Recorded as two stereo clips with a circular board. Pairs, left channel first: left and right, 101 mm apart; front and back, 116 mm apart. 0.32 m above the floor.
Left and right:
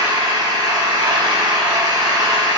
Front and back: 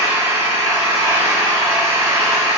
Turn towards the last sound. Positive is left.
turn(degrees=-125)